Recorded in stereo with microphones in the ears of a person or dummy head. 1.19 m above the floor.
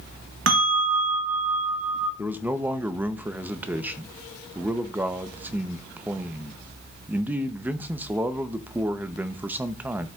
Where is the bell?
75° right (ahead or behind), 1.1 m.